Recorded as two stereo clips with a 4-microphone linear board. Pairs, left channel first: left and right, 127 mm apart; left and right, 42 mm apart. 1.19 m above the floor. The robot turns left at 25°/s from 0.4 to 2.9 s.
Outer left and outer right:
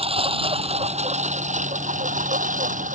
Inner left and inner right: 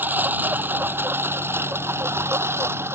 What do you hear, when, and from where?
0.0 s a lawn mower: 50° right (ahead or behind); by 3.0 s 85° right